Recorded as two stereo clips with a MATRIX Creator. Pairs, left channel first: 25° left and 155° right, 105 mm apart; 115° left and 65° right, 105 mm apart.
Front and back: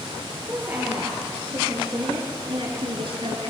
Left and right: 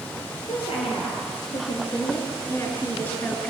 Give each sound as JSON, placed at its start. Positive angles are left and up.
{"t": 0.5, "sound": "a woman speaking", "azimuth_deg": 135, "distance_m": 5.0}